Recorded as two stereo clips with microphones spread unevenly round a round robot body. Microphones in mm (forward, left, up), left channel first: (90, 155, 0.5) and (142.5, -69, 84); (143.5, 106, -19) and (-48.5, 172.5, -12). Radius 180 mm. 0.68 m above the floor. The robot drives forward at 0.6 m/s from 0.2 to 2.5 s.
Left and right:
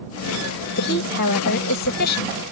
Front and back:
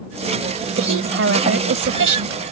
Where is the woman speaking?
150° left; by 2.4 s 155° left.